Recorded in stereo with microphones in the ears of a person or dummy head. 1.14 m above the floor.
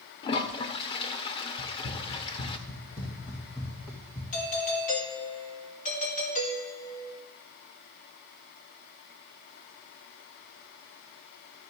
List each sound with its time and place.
0.2 s a toilet flushing: 35° left (ahead or behind), 0.7 m
1.6 s running footsteps: 50° left (ahead or behind), 2.5 m; by 4.2 s centre (ahead or behind), 3 m
4.3 s a doorbell: 40° left (ahead or behind), 2 m